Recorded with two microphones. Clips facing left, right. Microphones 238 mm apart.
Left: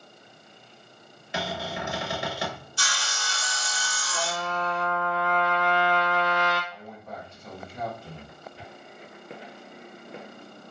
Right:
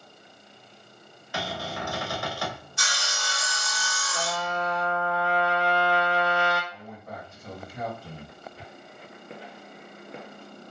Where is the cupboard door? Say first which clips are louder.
Left 1 dB; 25° left (ahead or behind), 0.6 m.